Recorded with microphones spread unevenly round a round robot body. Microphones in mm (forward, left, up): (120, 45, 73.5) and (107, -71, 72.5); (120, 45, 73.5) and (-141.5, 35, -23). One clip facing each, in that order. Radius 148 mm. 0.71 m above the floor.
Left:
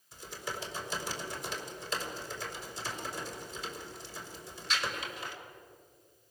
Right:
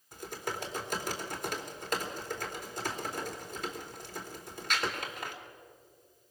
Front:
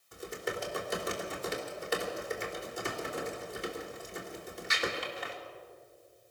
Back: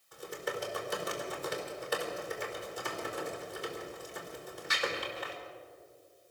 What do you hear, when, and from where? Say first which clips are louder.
0.1 s typing on a keyboard: right 3 dB, front 1 dB; 70° right, 3 m